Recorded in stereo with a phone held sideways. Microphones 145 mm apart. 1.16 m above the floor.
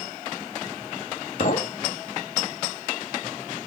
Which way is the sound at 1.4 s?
70° left (ahead or behind).